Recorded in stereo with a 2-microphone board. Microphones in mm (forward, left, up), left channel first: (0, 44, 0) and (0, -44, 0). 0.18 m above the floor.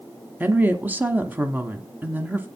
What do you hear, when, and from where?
0.4 s a woman speaking: 20° right (ahead or behind), 1.1 m